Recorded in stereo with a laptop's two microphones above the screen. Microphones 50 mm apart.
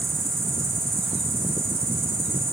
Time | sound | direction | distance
0.0 | an insect | 75° right (ahead or behind) | 6.5 m